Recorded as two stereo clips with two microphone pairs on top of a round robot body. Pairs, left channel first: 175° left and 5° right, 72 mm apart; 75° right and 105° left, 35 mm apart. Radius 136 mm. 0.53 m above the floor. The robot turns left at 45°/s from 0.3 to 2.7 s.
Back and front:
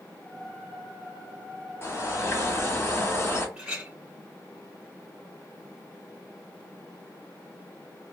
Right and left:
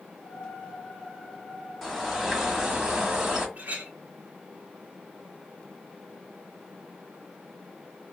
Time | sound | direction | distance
1.8 | a bird | 165° right | 1.5 m
3.6 | a clink | 70° left | 1.4 m